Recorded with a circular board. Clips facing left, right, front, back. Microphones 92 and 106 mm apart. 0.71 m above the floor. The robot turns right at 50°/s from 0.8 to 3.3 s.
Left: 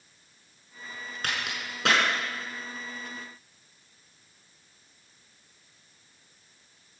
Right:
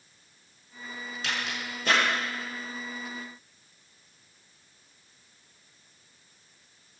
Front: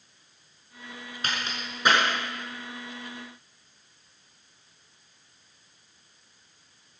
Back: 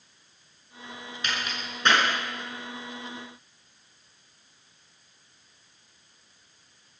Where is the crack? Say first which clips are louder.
Even, even; 50° left, 5.5 m; by 2.0 s 90° left, 5.5 m.